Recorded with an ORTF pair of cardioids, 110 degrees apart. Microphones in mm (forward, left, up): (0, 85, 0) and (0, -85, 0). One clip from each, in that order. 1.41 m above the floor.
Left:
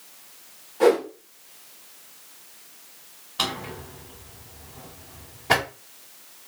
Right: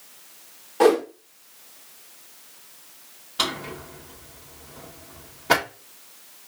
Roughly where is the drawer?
Ahead.